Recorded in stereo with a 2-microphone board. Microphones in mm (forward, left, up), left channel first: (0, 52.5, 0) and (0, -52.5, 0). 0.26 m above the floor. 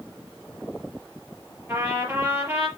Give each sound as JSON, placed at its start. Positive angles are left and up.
{"t": 1.7, "sound": "a trumpet", "side_deg": -25, "distance_m": 5.5}